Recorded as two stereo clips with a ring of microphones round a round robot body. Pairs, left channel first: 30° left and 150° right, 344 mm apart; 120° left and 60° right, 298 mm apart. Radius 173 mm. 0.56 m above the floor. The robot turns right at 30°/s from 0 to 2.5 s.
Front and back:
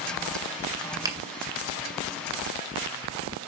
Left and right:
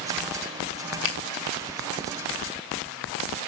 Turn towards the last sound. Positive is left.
turn(degrees=175)